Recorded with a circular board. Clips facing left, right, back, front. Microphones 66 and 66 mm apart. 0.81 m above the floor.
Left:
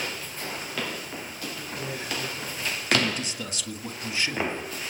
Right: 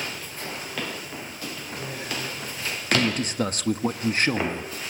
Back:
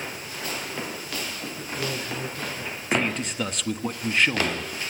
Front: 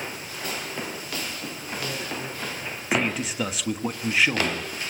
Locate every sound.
1.6 s a man speaking: 175° left, 9.5 m
2.9 s a man speaking: 85° right, 1.4 m